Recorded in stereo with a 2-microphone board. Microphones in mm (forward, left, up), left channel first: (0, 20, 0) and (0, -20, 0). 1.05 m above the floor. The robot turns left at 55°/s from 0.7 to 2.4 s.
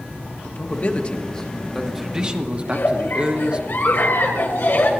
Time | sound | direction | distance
0.4 | a man speaking | 60° left | 1.2 m
2.6 | a giggle | 70° left (ahead or behind) | 2 m